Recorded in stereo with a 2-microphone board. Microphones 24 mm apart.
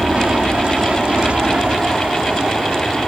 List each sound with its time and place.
0.0 s an aircraft: 55° right (ahead or behind)